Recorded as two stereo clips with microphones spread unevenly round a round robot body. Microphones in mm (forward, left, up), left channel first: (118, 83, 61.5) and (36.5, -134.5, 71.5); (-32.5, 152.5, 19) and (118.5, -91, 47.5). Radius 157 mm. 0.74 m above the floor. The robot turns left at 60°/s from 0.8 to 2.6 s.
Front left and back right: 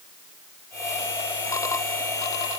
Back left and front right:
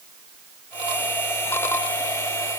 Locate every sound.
Only background noise.